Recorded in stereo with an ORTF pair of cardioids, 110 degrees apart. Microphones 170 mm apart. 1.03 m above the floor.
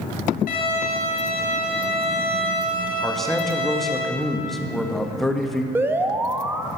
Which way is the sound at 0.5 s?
60° left.